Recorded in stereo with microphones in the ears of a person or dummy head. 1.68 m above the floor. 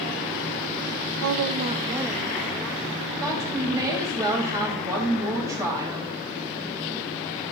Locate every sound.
1.2 s a woman speaking: 75° right (ahead or behind), 0.5 m; by 3.1 s 15° left (ahead or behind), 1.6 m
3.2 s a woman speaking: 20° right (ahead or behind), 2 m